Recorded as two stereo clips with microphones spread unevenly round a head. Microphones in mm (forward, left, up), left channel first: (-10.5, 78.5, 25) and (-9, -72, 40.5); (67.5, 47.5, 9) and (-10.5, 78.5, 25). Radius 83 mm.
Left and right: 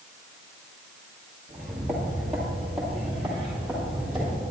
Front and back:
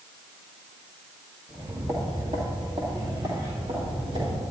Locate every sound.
1.5 s footsteps: 175° left, 2 m; by 4.4 s 175° right, 4 m